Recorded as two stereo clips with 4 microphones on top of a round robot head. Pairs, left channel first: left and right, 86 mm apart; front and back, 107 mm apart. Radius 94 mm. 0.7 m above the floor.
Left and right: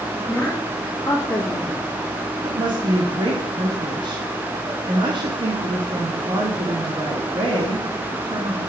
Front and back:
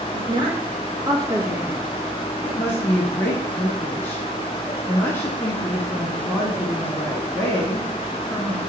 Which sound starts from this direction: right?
A woman speaking, at 2.4 s.